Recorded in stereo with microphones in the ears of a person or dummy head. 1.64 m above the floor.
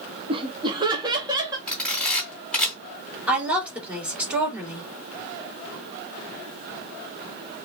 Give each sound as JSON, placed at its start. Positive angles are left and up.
{"t": 0.3, "sound": "laughter", "side_deg": -30, "distance_m": 0.6}
{"t": 1.7, "sound": "a camera shutter", "side_deg": 5, "distance_m": 2.5}
{"t": 3.3, "sound": "a woman speaking", "side_deg": -10, "distance_m": 2.0}